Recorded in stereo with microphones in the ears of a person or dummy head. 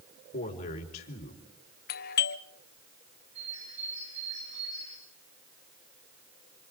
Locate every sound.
0.3 s a man speaking: 40° left (ahead or behind), 4 m
1.9 s a doorbell: 50° left (ahead or behind), 1.0 m
3.4 s a bird: 30° right (ahead or behind), 6 m